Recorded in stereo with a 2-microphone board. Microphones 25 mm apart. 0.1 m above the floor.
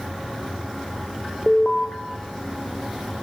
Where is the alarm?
30° left (ahead or behind), 4 m.